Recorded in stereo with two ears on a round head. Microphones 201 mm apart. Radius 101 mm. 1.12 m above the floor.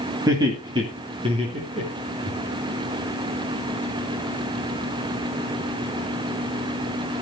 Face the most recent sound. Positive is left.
turn(degrees=-30)  # may be behind; listen again after turning